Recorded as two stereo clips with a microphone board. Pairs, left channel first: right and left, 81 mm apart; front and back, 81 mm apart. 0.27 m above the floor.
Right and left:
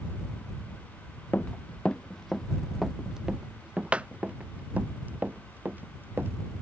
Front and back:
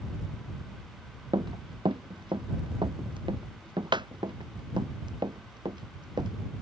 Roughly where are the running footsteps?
Behind.